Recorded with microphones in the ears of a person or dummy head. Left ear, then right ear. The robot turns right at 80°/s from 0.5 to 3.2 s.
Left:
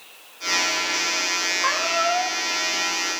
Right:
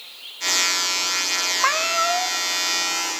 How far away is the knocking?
No knocking in this recording.